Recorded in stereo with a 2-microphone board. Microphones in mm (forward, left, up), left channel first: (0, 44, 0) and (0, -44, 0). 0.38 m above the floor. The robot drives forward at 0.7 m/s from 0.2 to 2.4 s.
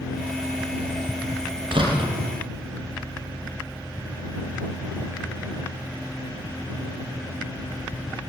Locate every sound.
1.7 s a door slam: 70° right (ahead or behind), 7 m